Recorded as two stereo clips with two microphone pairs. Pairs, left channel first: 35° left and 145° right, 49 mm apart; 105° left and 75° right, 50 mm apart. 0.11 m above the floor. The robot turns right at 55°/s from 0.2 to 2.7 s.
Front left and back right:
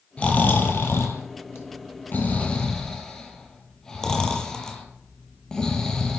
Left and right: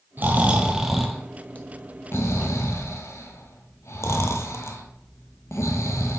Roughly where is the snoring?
Ahead right.